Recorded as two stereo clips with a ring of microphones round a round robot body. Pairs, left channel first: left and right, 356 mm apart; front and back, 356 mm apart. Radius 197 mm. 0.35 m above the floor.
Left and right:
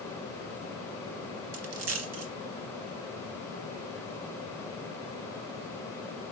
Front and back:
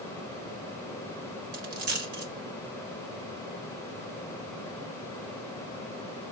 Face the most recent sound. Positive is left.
turn(degrees=-140)